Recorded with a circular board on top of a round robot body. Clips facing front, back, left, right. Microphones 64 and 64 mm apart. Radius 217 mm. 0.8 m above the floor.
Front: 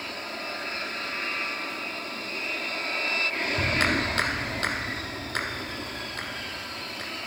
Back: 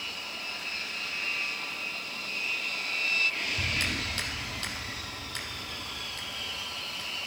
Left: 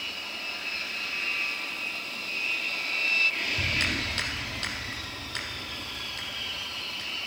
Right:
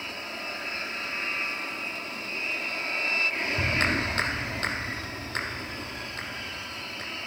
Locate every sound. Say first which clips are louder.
0.0 s an aircraft: front 5 dB, right 2 dB; 35° right
3.6 s a clap: front 7 dB, right 4 dB; 35° right